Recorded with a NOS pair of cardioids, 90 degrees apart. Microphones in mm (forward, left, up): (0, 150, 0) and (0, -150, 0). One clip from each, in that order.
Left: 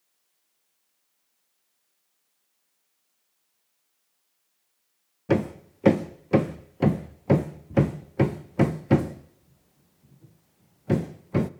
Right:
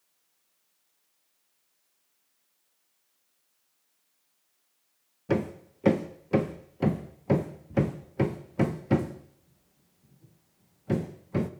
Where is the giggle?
I don't hear a giggle.